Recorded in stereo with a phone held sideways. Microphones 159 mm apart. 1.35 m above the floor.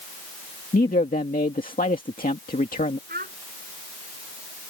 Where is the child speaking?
70° right (ahead or behind).